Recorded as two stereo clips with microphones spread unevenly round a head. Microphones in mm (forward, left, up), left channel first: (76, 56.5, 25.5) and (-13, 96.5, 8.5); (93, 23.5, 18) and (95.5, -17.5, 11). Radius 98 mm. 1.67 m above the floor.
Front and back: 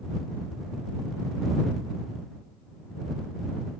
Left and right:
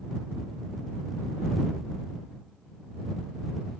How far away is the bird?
I don't hear a bird.